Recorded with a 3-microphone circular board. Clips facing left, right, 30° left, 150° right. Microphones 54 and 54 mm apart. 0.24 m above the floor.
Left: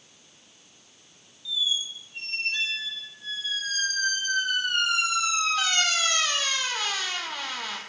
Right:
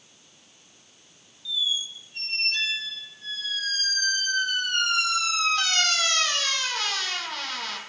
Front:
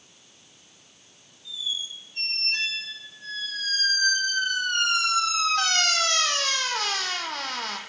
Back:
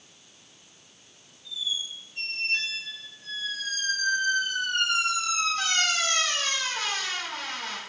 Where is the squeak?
10° left, 1.1 m.